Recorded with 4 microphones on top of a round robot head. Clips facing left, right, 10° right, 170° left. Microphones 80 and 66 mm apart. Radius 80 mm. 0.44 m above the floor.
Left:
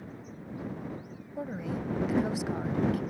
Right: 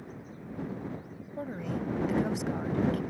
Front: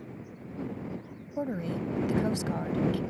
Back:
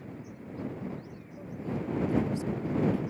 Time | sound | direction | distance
1.4 | a woman speaking | 5° left | ?